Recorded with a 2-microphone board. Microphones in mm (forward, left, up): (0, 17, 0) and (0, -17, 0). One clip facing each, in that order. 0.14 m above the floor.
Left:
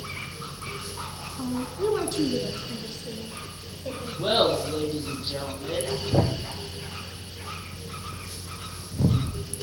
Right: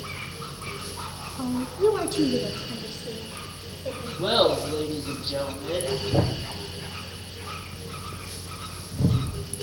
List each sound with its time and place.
1.4 s a woman speaking: 15° right (ahead or behind), 1.0 m; by 4.1 s centre (ahead or behind), 4 m
4.2 s laughter: centre (ahead or behind), 4.5 m
6.1 s a thud: 5° left (ahead or behind), 1.3 m